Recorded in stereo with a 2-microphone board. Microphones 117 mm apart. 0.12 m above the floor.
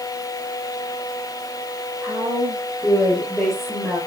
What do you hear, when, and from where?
2.0 s a woman speaking: centre (ahead or behind), 6 m